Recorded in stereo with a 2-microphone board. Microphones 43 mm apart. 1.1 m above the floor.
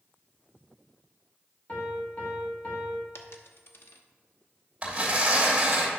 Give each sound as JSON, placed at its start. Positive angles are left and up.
{"t": 1.7, "sound": "a piano", "side_deg": 35, "distance_m": 2.0}
{"t": 3.1, "sound": "a dropped coin", "side_deg": 60, "distance_m": 0.7}
{"t": 4.8, "sound": "tearing paper", "side_deg": -25, "distance_m": 3.0}